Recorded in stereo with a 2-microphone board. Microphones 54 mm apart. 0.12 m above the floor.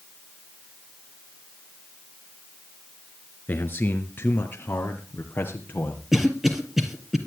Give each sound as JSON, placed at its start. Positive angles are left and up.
{"t": 3.5, "sound": "a man speaking", "side_deg": 35, "distance_m": 1.5}
{"t": 6.1, "sound": "a cough", "side_deg": -5, "distance_m": 3.0}